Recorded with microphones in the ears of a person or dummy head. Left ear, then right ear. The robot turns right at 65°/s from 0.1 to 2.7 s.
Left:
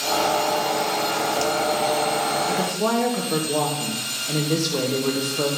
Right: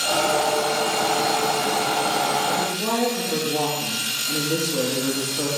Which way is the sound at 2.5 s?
30° left (ahead or behind).